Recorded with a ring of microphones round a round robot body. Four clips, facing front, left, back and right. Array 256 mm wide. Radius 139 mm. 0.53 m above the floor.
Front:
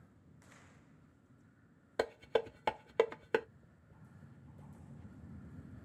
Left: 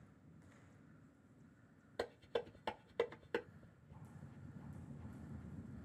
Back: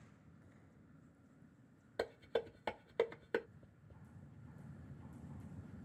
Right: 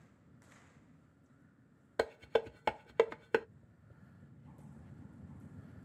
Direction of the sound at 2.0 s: 60° right.